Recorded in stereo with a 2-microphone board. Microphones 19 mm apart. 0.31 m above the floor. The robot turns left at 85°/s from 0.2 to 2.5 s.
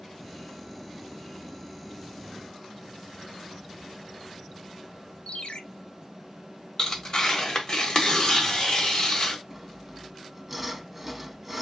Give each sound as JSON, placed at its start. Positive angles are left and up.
{"t": 5.3, "sound": "a ringtone", "side_deg": 65, "distance_m": 0.6}
{"t": 6.8, "sound": "tearing paper", "side_deg": 35, "distance_m": 1.4}
{"t": 9.5, "sound": "sawing", "side_deg": -5, "distance_m": 0.6}